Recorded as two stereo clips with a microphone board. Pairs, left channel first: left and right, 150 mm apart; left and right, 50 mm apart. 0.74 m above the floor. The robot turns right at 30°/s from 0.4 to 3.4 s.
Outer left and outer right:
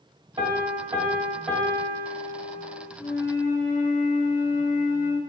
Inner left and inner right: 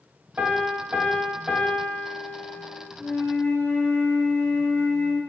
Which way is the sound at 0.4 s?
30° right.